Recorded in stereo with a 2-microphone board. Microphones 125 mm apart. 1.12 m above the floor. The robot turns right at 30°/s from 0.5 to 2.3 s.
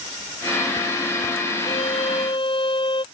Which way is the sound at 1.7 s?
60° left (ahead or behind).